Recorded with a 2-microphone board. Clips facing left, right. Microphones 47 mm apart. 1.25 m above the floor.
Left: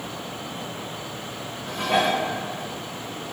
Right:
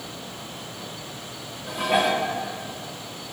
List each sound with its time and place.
1.7 s dishes clattering: 5° right (ahead or behind), 1.0 m